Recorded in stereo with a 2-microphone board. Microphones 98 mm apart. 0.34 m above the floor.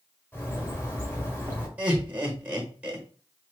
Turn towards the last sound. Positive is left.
turn(degrees=-15)  # may be behind; listen again after turning